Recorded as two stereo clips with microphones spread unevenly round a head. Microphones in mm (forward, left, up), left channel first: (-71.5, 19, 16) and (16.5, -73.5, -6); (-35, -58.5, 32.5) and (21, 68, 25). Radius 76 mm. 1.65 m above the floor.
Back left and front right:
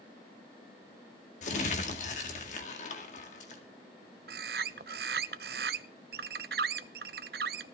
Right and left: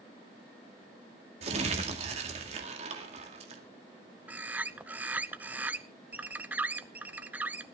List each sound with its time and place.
1.4 s crumpling: 110° left, 2.0 m
4.3 s a bird: 15° right, 0.5 m